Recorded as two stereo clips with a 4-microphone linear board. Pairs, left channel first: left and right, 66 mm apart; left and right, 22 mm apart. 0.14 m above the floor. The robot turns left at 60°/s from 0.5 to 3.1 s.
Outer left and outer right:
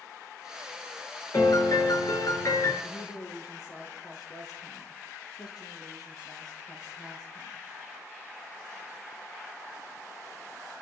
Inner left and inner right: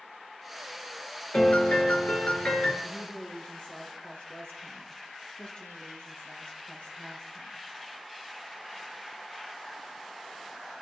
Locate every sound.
1.3 s a piano: 125° left, 6.5 m; by 2.7 s 40° left, 6.5 m
2.8 s a woman speaking: 70° left (ahead or behind), 4.5 m; by 7.6 s 75° left (ahead or behind), 4.5 m